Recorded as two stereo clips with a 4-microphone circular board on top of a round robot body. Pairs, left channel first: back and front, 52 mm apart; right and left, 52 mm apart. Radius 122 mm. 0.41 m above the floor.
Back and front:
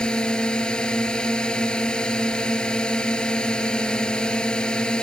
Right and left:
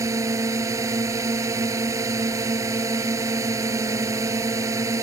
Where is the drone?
110° left.